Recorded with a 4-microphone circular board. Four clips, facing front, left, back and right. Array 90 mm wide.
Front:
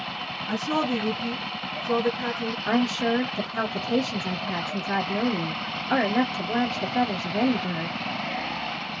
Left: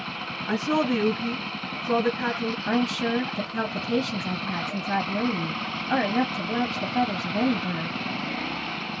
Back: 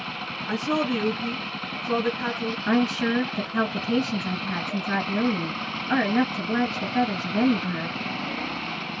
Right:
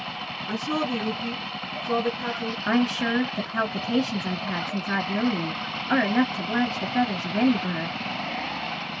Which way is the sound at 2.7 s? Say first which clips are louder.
Right 2 dB, back 1 dB; 110° right.